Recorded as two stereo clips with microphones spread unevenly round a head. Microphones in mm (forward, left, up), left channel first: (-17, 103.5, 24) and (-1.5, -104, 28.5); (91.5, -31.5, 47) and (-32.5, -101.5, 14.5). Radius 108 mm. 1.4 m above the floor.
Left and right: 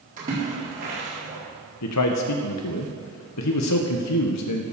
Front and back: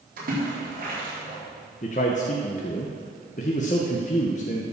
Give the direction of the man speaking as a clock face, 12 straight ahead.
9 o'clock.